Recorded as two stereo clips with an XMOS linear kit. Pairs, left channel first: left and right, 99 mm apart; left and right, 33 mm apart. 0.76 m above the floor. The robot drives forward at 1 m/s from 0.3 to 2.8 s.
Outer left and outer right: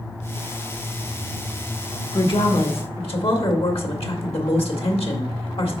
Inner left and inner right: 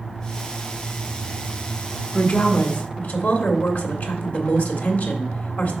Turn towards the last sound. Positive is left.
turn(degrees=75)  # may be behind; listen again after turning